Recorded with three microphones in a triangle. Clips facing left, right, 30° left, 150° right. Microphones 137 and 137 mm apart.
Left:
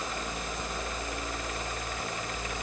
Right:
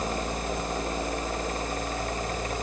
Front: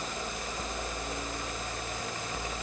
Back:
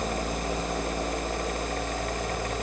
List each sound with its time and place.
Only background noise.